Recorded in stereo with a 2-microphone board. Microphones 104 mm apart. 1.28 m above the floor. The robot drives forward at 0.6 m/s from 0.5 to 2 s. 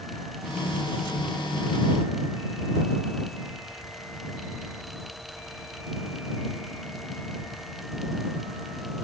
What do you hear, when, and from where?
Only background noise.